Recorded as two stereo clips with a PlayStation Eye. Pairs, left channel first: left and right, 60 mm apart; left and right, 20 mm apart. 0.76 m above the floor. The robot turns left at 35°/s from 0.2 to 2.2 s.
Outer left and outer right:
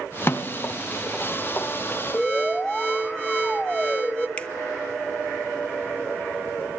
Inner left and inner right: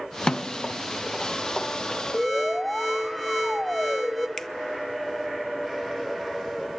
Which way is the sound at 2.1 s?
20° left (ahead or behind).